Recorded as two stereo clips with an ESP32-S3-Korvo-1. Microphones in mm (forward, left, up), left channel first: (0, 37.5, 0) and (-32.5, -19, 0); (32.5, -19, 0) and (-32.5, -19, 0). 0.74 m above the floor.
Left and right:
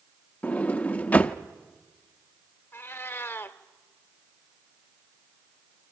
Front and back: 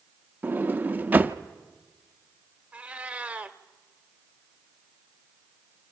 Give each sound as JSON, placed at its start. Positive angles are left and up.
{"t": 0.4, "sound": "a sliding door", "azimuth_deg": 120, "distance_m": 0.7}
{"t": 2.7, "sound": "a cat meowing", "azimuth_deg": 110, "distance_m": 0.9}